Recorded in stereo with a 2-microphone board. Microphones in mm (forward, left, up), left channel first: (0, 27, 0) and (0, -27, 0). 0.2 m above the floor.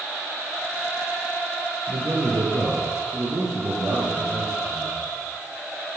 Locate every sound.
1.9 s a man speaking: 70° right (ahead or behind), 4 m